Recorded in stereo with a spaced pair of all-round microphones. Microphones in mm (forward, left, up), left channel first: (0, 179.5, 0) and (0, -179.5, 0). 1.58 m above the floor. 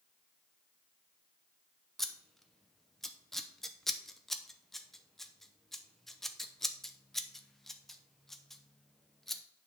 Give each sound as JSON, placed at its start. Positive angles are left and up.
{"t": 2.0, "sound": "scissors", "side_deg": 0, "distance_m": 0.8}